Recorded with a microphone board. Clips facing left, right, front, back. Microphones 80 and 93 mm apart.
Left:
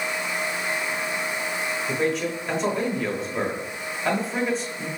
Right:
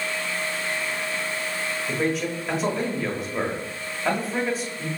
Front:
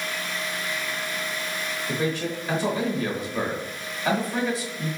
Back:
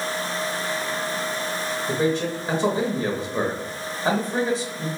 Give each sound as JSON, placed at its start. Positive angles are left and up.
{"t": 1.9, "sound": "a man speaking", "azimuth_deg": -175, "distance_m": 1.0}